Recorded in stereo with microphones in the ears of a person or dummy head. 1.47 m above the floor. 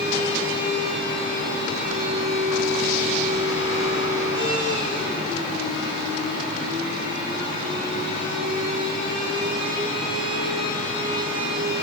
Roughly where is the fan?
Right.